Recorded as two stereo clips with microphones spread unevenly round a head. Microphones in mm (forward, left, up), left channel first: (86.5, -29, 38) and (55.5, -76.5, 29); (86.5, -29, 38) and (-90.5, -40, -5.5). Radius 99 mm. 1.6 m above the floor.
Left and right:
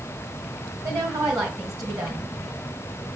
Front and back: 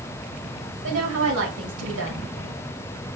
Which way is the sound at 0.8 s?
170° left.